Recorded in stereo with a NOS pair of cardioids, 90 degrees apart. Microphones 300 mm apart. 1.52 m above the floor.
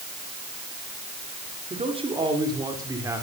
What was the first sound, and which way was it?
A man speaking, 20° right.